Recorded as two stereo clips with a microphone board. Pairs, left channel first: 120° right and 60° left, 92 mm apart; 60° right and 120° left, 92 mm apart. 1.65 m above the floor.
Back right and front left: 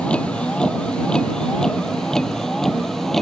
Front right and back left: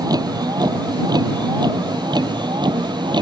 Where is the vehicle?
160° left; by 3.2 s 155° left.